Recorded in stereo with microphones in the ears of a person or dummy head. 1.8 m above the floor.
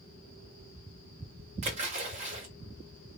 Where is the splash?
25° right (ahead or behind), 0.8 m.